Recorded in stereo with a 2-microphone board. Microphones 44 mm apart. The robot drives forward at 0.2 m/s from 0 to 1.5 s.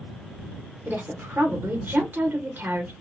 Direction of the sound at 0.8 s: 50° right (ahead or behind).